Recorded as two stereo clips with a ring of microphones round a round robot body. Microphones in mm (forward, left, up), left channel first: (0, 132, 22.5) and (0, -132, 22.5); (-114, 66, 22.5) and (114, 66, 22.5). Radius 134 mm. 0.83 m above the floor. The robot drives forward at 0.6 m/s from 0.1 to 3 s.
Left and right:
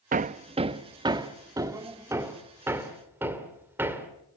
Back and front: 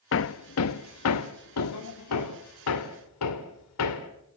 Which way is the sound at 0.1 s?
150° right.